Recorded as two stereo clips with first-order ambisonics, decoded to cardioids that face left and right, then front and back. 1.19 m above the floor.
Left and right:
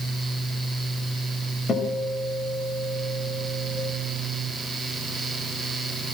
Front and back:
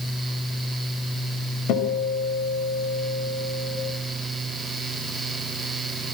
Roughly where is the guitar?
Ahead left.